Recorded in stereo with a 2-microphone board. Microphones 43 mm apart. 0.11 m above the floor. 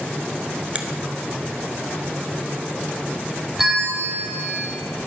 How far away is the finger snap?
About 1.0 m.